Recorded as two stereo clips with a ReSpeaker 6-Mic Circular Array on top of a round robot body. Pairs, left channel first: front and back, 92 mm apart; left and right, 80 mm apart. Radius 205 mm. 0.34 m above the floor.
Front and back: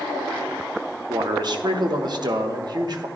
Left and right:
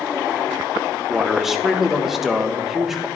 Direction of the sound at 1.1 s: 175° right.